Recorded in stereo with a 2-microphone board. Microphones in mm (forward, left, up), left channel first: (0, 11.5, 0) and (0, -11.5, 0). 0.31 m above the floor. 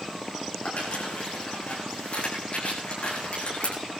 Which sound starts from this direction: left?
Crumpling, at 0.7 s.